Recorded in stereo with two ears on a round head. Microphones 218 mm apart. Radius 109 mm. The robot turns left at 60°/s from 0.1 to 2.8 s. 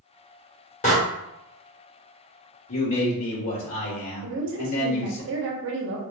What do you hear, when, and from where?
0.8 s a door slam: 30° left (ahead or behind), 1.4 m; by 0.9 s 35° left (ahead or behind), 1.4 m
2.7 s a man speaking: 60° left (ahead or behind), 1.7 m
4.2 s a woman speaking: 50° right (ahead or behind), 1.1 m